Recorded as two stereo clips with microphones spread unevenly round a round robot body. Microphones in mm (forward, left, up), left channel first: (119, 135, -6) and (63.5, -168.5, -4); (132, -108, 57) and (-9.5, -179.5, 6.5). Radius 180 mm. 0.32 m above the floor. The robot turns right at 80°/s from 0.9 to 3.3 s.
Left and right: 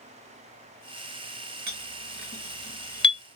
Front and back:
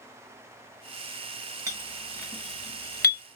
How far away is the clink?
About 1.3 m.